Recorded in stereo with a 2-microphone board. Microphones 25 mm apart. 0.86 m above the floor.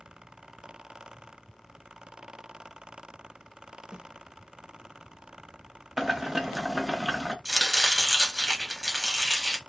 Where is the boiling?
10° right (ahead or behind), 0.6 m.